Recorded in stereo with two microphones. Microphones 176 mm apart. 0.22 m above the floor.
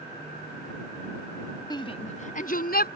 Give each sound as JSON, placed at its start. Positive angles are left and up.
{"t": 1.7, "sound": "a shout", "side_deg": 25}